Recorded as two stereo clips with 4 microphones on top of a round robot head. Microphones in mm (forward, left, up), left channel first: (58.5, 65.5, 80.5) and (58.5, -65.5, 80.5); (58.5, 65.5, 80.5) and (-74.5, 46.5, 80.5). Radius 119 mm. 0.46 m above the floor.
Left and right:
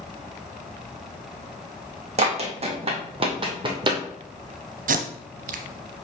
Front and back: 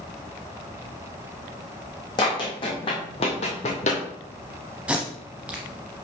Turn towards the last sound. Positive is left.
turn(degrees=-90)